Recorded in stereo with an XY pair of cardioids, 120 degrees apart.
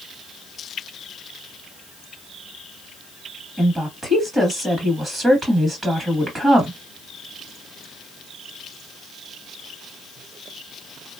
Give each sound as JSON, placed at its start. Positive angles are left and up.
{"t": 3.6, "sound": "a woman speaking", "azimuth_deg": -20, "distance_m": 2.0}